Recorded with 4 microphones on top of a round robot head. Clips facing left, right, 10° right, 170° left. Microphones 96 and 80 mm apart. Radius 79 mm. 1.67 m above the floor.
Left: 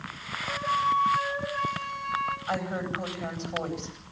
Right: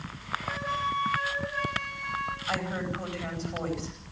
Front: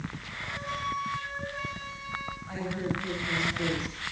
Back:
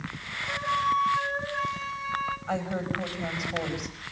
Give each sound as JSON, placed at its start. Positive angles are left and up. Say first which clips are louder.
{"t": 0.5, "sound": "a flute", "louder": "left 5 dB, back 8 dB", "azimuth_deg": 145, "distance_m": 4.5}
{"t": 2.5, "sound": "a woman speaking", "louder": "left 1 dB, back 3 dB", "azimuth_deg": 160, "distance_m": 9.5}